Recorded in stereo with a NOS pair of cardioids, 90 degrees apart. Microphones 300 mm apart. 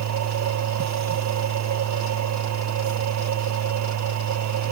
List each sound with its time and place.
0.0 s a machine running: 70° right